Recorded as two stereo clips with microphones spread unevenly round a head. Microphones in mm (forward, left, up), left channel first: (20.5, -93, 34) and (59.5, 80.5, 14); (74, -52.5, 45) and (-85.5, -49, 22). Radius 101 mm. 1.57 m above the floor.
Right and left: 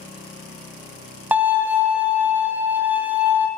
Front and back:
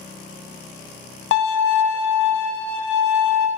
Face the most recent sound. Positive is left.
turn(degrees=-5)